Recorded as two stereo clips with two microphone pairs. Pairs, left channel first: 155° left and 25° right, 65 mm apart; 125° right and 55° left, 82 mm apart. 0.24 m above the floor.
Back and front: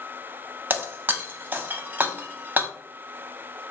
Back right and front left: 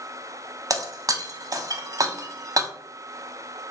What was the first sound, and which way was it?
Breaking glass, 25° left.